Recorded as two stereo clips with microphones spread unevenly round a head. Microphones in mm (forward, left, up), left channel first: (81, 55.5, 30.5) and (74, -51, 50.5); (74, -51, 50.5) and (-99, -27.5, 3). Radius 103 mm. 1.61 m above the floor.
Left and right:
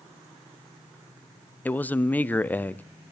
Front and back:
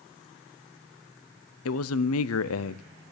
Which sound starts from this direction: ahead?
A man speaking, at 1.6 s.